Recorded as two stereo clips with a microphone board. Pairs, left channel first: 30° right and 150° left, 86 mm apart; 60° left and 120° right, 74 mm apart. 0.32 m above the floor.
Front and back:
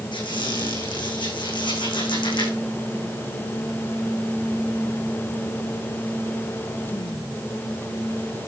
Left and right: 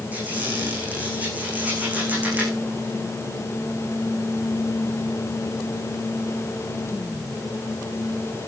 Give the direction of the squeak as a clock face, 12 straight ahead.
2 o'clock.